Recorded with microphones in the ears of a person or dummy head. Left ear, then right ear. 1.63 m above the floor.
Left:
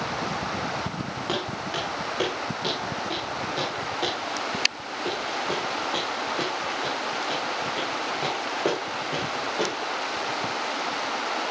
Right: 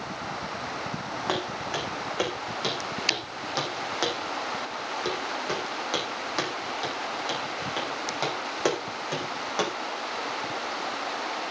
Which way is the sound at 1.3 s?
25° right (ahead or behind).